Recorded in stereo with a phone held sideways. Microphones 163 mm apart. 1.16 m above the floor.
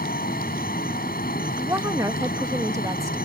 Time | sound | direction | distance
0.0 | a fan | 85° left | ?
1.6 | a woman speaking | 20° right (ahead or behind) | ?